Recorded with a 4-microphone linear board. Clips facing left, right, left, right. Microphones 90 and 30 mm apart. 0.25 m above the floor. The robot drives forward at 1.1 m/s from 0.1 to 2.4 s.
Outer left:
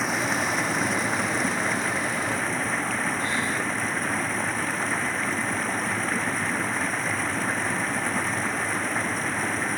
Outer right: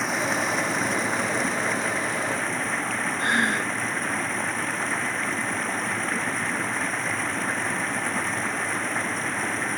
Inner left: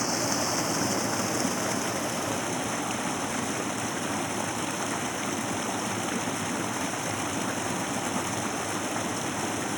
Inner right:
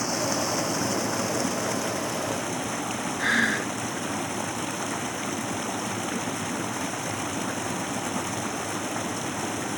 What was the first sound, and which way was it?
Running water, centre (ahead or behind).